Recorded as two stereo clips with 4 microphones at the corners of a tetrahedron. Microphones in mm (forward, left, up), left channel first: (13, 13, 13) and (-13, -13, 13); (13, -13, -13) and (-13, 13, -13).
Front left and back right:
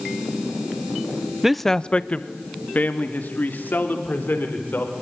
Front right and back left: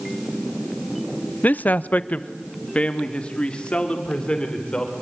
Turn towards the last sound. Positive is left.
turn(degrees=20)